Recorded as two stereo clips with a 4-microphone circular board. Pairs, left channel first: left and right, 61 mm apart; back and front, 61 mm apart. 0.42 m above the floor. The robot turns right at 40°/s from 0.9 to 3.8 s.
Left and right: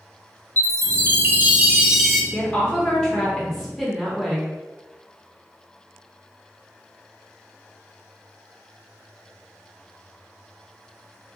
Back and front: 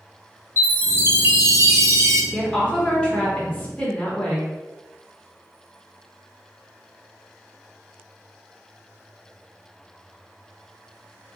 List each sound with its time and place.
0.6 s a chime: 50° right, 0.6 m; by 2.2 s straight ahead, 0.6 m
2.3 s a woman speaking: 110° left, 0.9 m; by 4.5 s 170° left, 0.9 m